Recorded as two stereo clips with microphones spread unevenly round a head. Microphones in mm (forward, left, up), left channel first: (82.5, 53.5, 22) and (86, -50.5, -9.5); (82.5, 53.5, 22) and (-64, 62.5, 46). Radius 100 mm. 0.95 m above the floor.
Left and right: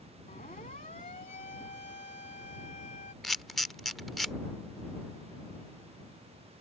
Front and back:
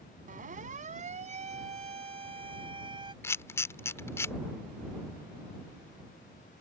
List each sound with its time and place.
0.3 s a siren: 145° left; by 3.1 s 120° left
3.2 s a camera shutter: 70° left